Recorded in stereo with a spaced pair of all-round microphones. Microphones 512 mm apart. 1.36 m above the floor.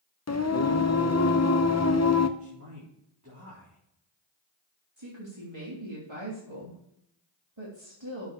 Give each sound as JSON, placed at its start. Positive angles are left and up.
{"t": 0.3, "sound": "singing", "side_deg": 30, "distance_m": 0.7}
{"t": 2.4, "sound": "a man speaking", "side_deg": -35, "distance_m": 4.0}
{"t": 5.0, "sound": "a woman speaking", "side_deg": -60, "distance_m": 3.0}